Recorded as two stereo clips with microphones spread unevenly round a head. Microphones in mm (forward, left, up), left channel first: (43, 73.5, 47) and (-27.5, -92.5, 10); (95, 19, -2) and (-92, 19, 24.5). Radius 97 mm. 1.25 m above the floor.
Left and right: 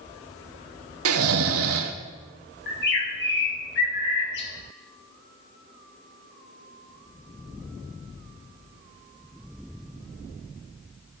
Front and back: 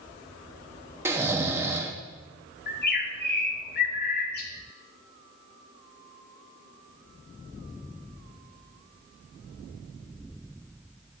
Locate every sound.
1.1 s snoring: 105° right, 0.9 m
2.7 s a bird: 40° left, 1.9 m